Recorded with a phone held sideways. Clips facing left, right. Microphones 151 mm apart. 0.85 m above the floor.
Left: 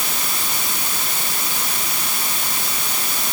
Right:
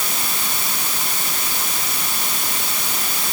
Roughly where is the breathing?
No breathing in this recording.